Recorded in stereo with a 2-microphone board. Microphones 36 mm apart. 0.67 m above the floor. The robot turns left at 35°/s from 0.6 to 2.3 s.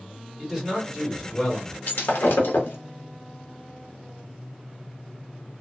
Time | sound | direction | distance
0.4 | a man speaking | 160° right | 1.9 m
1.9 | breaking glass | 75° left (ahead or behind) | 0.7 m